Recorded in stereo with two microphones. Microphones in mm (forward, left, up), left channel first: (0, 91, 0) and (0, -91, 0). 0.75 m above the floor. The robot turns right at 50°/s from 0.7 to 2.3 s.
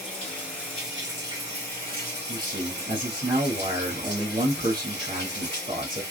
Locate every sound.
0.0 s running water: 175° left, 2 m; by 6.1 s 105° right, 2 m
2.3 s a man speaking: 50° right (ahead or behind), 1.3 m